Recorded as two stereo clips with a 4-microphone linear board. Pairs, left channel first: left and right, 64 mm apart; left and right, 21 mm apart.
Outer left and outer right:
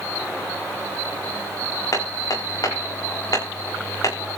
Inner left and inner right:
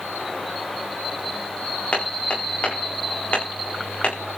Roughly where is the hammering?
Left.